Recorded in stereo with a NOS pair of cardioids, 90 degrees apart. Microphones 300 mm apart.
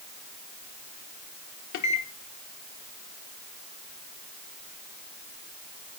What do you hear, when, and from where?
1.7 s a microwave: 65° left, 1.0 m